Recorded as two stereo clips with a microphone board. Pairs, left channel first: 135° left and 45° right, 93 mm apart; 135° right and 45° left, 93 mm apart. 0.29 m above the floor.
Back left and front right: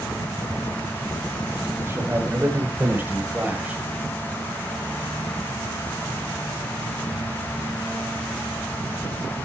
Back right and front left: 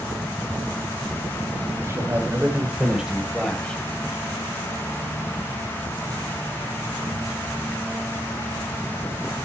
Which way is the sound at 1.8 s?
5° left.